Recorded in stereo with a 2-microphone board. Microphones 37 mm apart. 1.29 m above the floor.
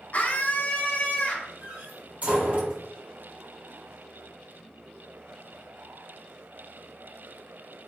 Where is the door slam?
45° right (ahead or behind), 3.5 m.